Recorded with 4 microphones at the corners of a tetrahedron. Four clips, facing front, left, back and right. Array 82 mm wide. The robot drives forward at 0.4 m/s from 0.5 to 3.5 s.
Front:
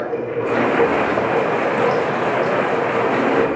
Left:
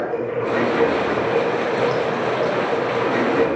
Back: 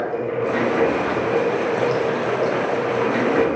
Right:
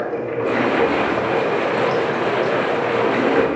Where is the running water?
80° right, 3 m; by 3.6 s 105° right, 3 m.